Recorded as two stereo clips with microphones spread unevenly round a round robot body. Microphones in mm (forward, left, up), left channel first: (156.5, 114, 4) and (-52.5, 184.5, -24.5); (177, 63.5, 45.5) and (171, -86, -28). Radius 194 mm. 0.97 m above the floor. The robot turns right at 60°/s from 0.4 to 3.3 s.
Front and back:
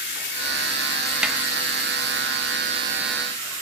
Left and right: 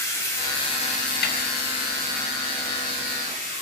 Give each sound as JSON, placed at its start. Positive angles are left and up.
{"t": 0.0, "sound": "running water", "azimuth_deg": 20, "distance_m": 2.5}
{"t": 1.2, "sound": "a snare drum", "azimuth_deg": 75, "distance_m": 1.0}